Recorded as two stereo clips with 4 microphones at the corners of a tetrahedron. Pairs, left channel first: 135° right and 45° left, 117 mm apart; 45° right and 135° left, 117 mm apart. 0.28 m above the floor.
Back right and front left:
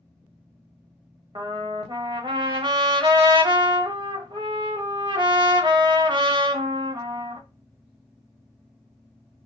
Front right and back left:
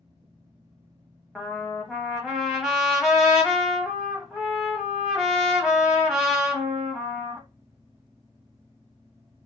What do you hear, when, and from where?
1.4 s a trumpet: 50° left, 0.8 m